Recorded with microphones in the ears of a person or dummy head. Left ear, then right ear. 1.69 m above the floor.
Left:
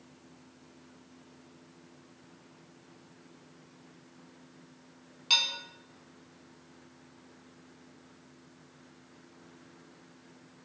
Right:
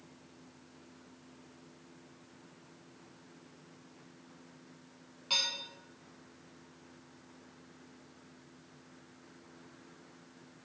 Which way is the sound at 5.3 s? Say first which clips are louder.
Left 5 dB; 45° left (ahead or behind).